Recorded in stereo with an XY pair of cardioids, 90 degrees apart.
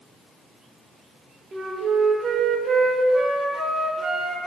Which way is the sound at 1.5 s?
35° right.